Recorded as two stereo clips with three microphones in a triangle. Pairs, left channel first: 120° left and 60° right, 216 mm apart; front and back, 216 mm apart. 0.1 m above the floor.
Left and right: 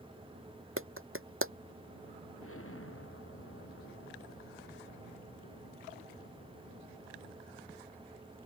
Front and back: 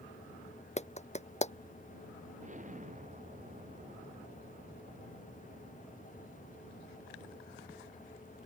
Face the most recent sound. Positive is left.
turn(degrees=125)